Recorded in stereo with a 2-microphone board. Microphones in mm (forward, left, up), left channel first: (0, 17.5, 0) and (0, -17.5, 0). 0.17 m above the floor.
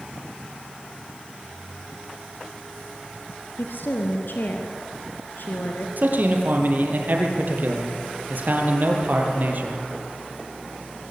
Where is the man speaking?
60° right (ahead or behind), 4.5 m.